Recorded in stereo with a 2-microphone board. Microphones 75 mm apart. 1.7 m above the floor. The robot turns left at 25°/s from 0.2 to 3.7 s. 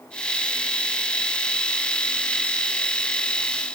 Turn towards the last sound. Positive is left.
No sound to turn to.